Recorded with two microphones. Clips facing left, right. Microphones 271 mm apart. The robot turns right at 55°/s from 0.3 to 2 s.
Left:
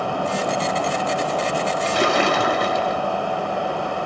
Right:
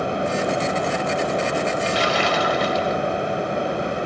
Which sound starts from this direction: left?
A splash, at 1.9 s.